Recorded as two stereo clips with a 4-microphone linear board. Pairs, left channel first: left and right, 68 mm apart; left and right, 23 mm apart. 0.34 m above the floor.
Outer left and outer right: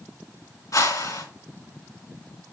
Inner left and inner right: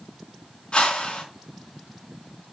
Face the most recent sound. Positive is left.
turn(degrees=65)  # may be behind; listen again after turning